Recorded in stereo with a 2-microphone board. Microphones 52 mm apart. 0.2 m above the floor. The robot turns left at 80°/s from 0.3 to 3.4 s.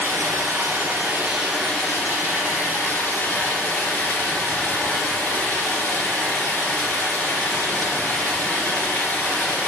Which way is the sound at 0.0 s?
80° right.